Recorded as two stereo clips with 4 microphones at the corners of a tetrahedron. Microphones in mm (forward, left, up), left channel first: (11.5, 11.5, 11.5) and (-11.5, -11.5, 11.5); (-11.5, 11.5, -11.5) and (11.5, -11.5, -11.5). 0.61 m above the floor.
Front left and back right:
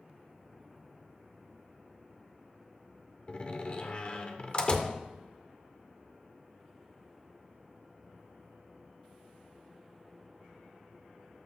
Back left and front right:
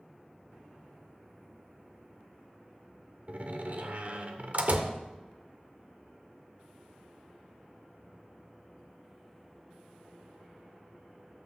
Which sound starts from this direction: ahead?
A door slam, at 3.3 s.